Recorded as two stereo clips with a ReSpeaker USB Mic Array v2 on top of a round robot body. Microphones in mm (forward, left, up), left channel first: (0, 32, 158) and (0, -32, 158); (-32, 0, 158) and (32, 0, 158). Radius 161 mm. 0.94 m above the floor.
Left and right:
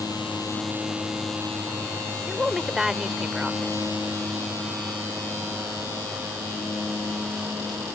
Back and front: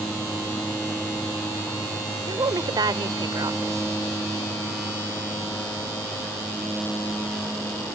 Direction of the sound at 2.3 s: 10° right.